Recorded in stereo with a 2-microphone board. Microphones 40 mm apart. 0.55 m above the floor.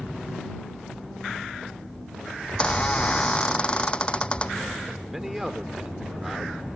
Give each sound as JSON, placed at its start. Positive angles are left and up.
{"t": 2.5, "sound": "a squeak", "side_deg": 25}
{"t": 5.1, "sound": "a man speaking", "side_deg": -5}